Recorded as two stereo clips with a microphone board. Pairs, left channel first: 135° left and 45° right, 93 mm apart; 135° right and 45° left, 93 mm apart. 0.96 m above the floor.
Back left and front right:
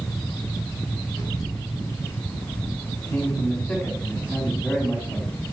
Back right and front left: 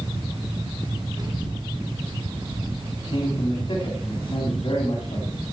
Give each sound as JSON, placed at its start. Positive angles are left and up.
{"t": 1.2, "sound": "a child speaking", "azimuth_deg": 85, "distance_m": 3.5}
{"t": 3.0, "sound": "a man speaking", "azimuth_deg": -160, "distance_m": 3.0}